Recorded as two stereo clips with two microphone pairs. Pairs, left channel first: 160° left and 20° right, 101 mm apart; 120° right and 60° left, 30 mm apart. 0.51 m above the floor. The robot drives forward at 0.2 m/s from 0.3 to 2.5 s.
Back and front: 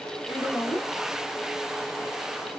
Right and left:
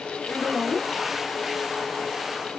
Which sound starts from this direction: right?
A woman speaking, at 0.3 s.